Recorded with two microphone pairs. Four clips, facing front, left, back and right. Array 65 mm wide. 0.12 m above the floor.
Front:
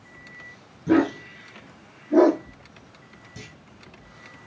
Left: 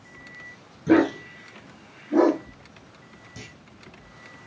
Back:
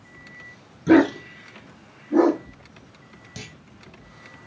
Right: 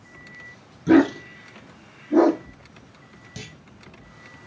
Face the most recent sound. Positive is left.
turn(degrees=-155)